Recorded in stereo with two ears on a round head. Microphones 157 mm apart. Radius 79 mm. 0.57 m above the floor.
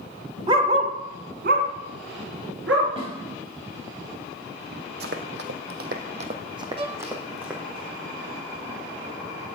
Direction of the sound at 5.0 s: 60° right (ahead or behind).